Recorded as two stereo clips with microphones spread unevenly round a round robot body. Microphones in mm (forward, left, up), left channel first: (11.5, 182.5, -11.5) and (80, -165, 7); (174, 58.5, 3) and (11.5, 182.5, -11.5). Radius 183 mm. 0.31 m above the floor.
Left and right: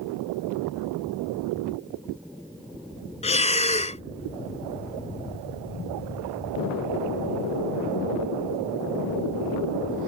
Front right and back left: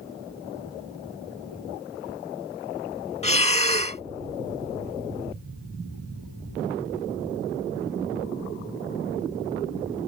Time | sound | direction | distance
3.2 | breathing | 25° left | ?